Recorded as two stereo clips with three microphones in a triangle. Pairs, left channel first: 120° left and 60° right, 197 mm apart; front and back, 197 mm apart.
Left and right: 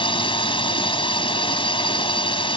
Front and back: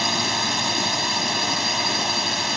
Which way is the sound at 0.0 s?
90° left.